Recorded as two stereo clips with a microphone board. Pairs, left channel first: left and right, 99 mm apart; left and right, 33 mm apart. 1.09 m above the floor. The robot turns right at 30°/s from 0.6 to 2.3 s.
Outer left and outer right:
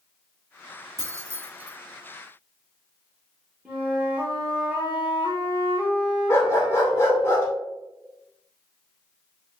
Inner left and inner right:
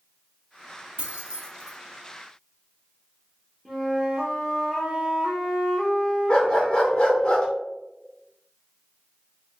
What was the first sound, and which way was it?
Keys jangling, 40° right (ahead or behind).